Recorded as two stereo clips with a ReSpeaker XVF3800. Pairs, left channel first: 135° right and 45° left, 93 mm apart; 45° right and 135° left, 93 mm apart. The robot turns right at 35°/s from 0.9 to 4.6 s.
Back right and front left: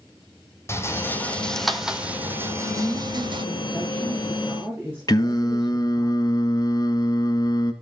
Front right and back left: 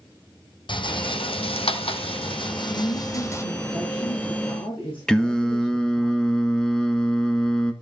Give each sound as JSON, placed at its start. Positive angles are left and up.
{"t": 0.7, "sound": "a rattle", "azimuth_deg": -75, "distance_m": 1.0}
{"t": 2.7, "sound": "a woman speaking", "azimuth_deg": -100, "distance_m": 7.0}
{"t": 5.1, "sound": "singing", "azimuth_deg": -125, "distance_m": 1.3}